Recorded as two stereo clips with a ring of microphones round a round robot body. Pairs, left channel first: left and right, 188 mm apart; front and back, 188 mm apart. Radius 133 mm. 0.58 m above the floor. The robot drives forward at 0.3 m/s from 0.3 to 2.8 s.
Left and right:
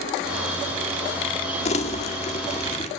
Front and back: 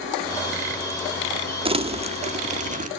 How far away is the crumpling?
About 1.3 m.